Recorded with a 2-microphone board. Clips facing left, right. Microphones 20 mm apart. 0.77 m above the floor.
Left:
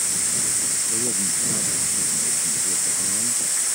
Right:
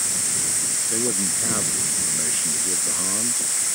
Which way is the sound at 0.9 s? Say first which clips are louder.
Right 1 dB; 50° right (ahead or behind).